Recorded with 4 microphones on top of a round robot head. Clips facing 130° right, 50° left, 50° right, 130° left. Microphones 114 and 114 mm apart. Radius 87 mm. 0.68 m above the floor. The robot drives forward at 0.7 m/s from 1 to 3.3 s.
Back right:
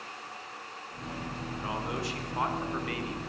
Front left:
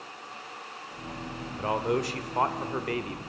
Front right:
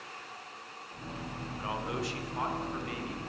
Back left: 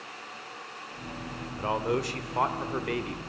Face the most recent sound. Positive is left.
turn(degrees=105)